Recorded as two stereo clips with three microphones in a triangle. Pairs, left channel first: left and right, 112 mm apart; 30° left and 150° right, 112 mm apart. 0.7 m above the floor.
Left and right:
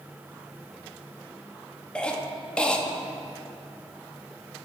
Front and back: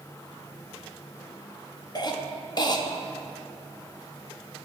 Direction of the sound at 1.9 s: 15° left.